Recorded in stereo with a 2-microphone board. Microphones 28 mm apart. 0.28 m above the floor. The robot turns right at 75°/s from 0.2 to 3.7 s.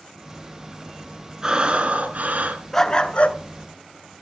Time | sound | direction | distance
1.4 | breathing | 155° right | 2.5 m
2.7 | a dog barking | 20° left | 1.2 m